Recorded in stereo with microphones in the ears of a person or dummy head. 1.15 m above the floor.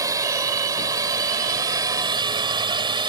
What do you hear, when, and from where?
0.0 s a drone: 15° right (ahead or behind); by 3.1 s 20° right (ahead or behind)